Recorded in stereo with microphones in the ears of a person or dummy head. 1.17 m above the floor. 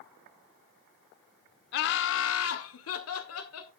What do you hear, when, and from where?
1.7 s laughter: 45° left (ahead or behind), 0.7 m; by 3.7 s 80° left, 2 m